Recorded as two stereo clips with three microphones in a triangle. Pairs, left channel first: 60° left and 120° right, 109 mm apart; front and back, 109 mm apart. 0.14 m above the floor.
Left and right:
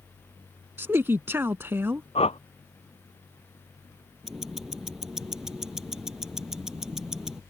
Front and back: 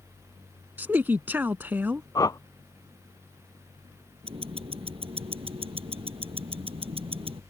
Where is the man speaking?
140° right.